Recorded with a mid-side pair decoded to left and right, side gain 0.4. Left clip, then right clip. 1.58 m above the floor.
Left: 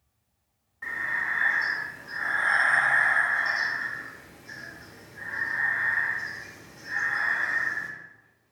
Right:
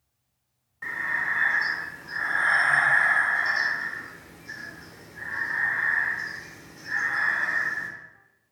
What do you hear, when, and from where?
0.8 s breathing: 25° right, 0.9 m